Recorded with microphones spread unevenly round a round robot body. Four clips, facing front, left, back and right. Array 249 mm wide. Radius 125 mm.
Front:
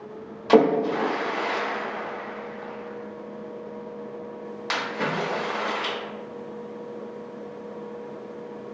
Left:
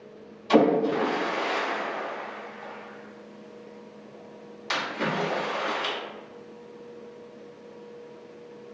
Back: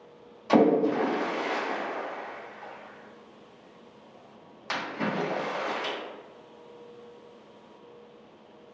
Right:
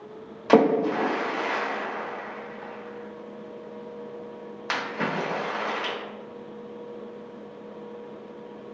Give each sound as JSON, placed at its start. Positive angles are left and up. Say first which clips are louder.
{"t": 0.5, "sound": "a splash", "louder": "right 1 dB, front 3 dB", "azimuth_deg": -60, "distance_m": 1.1}